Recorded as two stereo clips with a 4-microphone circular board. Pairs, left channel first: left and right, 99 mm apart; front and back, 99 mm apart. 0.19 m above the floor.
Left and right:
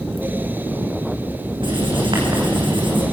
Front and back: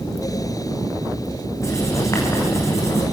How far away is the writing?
About 5 m.